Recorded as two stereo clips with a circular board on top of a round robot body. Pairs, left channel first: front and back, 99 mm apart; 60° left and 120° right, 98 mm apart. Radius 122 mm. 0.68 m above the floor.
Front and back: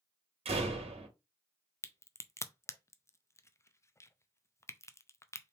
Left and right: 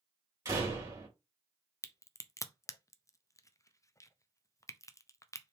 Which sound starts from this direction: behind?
A door slam, at 0.5 s.